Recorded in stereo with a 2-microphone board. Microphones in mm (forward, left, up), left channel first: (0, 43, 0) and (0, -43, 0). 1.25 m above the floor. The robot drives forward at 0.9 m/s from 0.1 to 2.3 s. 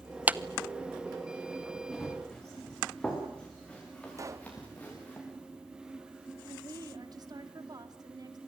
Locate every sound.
0.3 s a clap: 20° right (ahead or behind), 0.7 m
1.9 s running footsteps: 5° left (ahead or behind), 8.5 m; by 5.2 s 20° left (ahead or behind), 7.5 m
4.2 s a pop: 35° right (ahead or behind), 0.7 m
6.5 s a woman speaking: 50° right (ahead or behind), 3 m